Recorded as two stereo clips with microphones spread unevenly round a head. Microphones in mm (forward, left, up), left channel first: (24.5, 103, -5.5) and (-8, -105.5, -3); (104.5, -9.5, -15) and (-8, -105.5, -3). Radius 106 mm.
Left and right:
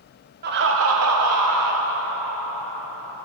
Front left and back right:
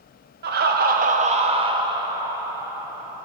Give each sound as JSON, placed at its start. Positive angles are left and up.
{"t": 0.4, "sound": "laughter", "azimuth_deg": -145, "distance_m": 0.5}